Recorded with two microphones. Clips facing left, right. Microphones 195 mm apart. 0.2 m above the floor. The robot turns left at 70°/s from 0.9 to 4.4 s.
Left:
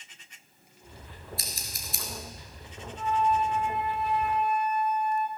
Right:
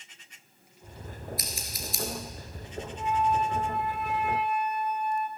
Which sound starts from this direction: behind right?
A flute, at 3.0 s.